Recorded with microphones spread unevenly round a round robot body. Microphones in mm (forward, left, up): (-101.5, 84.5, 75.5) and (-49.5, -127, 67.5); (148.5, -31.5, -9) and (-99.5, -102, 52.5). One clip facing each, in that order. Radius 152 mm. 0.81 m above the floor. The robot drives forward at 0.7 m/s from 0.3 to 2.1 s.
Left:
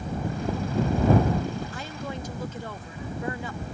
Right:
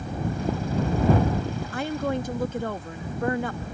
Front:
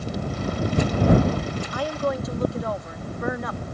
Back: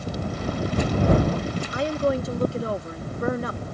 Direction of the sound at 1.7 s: 90° right.